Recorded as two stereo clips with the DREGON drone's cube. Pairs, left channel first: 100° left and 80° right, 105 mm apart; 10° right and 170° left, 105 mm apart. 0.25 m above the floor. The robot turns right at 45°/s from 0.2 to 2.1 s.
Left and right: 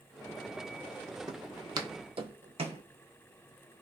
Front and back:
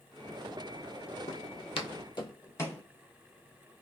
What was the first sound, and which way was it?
Footsteps, 25° right.